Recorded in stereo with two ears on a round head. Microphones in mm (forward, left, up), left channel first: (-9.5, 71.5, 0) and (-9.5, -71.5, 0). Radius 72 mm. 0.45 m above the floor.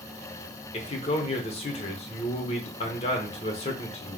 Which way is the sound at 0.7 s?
40° left (ahead or behind).